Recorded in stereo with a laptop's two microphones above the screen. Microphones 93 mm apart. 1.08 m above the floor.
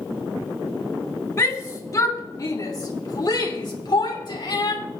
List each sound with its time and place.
1.4 s a shout: 30° left (ahead or behind), 2.5 m; by 4.8 s 50° left (ahead or behind), 4 m